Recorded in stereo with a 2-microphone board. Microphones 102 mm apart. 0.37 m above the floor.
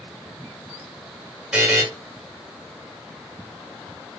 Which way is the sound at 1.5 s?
10° right (ahead or behind).